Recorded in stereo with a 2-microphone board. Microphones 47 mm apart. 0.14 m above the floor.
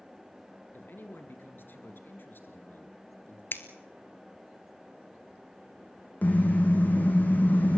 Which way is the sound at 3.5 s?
55° left (ahead or behind).